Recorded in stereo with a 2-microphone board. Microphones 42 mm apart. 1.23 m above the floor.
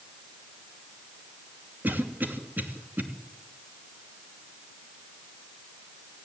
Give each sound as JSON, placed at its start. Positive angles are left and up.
{"t": 1.8, "sound": "a cough", "side_deg": -45, "distance_m": 3.0}